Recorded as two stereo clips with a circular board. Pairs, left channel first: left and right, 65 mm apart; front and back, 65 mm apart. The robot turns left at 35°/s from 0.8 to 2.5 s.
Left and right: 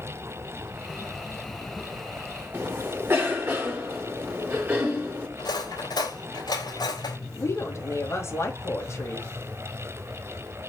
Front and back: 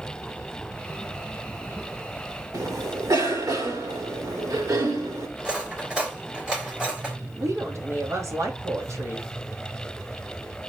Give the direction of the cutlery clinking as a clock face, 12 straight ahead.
9 o'clock.